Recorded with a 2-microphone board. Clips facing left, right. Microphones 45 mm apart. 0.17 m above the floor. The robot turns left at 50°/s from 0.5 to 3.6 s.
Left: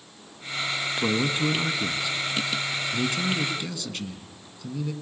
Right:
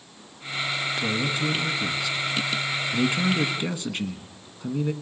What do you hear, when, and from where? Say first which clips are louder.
1.0 s a man speaking: left 4 dB; 35° left (ahead or behind), 1.3 m; by 4.9 s 30° right (ahead or behind), 1.3 m